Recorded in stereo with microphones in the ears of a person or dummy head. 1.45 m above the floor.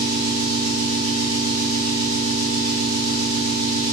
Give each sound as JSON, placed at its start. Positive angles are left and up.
{"t": 0.0, "sound": "an engine running", "side_deg": -75, "distance_m": 1.4}